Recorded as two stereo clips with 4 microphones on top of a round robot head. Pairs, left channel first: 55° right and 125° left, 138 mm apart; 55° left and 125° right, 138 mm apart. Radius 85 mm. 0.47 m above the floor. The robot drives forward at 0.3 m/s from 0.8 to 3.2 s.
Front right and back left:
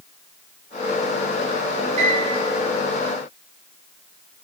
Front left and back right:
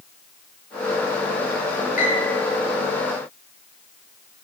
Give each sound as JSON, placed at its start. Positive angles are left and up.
{"t": 2.0, "sound": "a piano", "azimuth_deg": 80, "distance_m": 4.0}